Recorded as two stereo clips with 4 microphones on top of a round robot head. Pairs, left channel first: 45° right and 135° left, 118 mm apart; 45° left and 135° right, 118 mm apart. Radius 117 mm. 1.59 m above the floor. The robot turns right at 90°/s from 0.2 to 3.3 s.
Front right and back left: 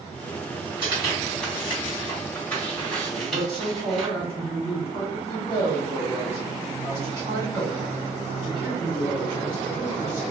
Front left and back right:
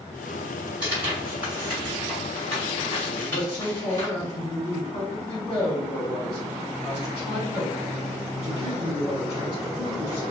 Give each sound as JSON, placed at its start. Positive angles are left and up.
{"t": 0.8, "sound": "tearing paper", "azimuth_deg": -175, "distance_m": 1.2}
{"t": 3.1, "sound": "a man speaking", "azimuth_deg": -20, "distance_m": 1.5}